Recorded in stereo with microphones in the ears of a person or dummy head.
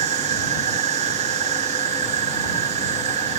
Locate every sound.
0.0 s an insect: 35° right (ahead or behind)